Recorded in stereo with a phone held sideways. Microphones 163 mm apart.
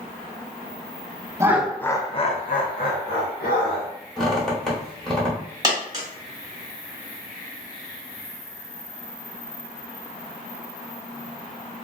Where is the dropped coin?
20° right (ahead or behind), 1.4 m.